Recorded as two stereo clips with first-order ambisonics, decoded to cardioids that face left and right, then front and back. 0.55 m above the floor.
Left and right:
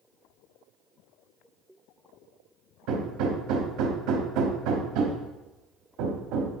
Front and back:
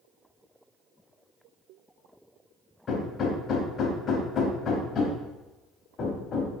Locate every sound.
2.9 s hammering: 60° right, 1.0 m